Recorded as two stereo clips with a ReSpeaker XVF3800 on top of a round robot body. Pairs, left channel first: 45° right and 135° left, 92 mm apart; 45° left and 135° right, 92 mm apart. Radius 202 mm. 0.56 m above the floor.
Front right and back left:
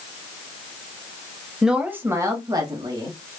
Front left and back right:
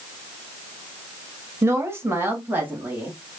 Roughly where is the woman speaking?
Behind right.